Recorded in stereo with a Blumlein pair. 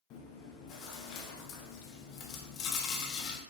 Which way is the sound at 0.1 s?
35° left.